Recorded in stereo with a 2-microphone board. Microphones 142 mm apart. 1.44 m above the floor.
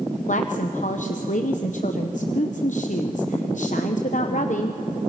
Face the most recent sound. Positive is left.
turn(degrees=60)  # may be behind; listen again after turning